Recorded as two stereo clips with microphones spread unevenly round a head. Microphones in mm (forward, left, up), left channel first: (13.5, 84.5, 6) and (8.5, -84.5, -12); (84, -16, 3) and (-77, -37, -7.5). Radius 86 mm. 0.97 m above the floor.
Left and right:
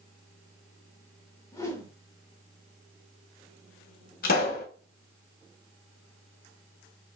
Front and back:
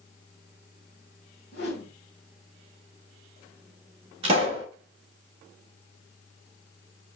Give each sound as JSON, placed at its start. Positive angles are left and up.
{"t": 1.5, "sound": "a whoosh", "azimuth_deg": 15, "distance_m": 1.5}
{"t": 4.2, "sound": "a pop", "azimuth_deg": 130, "distance_m": 1.2}